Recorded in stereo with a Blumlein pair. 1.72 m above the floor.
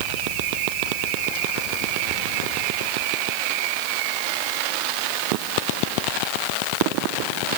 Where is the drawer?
No drawer in this recording.